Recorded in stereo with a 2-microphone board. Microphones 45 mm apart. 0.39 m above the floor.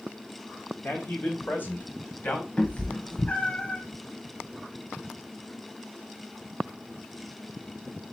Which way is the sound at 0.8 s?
40° left (ahead or behind).